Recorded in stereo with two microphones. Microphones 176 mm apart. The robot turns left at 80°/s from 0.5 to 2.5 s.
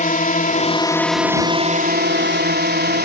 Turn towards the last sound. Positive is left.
turn(degrees=-110)